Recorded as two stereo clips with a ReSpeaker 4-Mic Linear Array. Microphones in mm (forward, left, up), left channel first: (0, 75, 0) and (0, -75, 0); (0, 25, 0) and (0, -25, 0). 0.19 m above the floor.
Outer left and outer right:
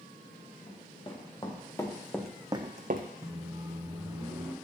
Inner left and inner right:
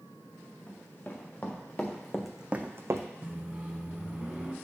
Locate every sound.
0.7 s running footsteps: 35° left (ahead or behind), 2.5 m; by 3.1 s 75° right (ahead or behind), 0.9 m
3.2 s a microwave: 25° right (ahead or behind), 1.1 m